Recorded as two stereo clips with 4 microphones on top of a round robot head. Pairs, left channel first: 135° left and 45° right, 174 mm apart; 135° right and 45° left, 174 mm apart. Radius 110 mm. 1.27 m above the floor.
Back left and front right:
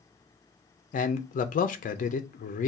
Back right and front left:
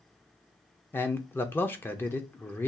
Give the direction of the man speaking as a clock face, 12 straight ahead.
7 o'clock.